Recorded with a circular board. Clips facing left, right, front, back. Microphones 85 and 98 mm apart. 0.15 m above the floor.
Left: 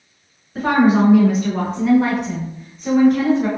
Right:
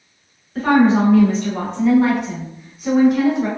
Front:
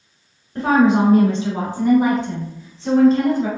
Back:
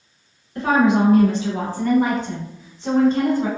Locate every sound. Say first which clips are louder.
0.6 s a woman speaking: right 1 dB, front 2 dB; 15° left, 1.4 m; by 3.5 s 160° right, 1.3 m